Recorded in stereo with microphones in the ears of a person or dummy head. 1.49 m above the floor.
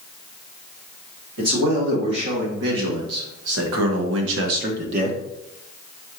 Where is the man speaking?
55° right (ahead or behind), 2 m; by 5.2 s 35° right (ahead or behind), 0.8 m.